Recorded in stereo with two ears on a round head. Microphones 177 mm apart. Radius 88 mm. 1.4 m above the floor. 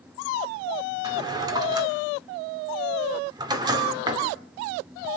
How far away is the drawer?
About 1.8 m.